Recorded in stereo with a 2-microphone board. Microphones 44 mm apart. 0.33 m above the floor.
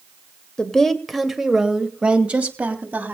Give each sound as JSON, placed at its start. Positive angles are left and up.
{"t": 0.6, "sound": "a woman speaking", "side_deg": 15, "distance_m": 1.6}